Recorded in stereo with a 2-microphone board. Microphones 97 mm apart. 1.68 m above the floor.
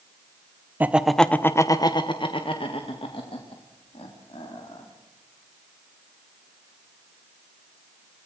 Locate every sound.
0.8 s laughter: 20° right (ahead or behind), 1.1 m; by 4.8 s 85° left, 4 m